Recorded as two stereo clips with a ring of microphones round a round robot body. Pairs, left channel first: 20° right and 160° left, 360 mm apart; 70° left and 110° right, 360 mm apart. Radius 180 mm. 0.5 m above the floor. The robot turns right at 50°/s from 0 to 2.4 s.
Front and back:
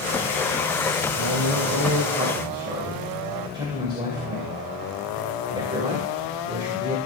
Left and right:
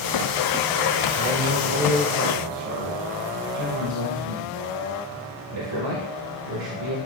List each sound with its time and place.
1.2 s a man speaking: 170° left, 2.5 m; by 7.0 s 125° right, 2.5 m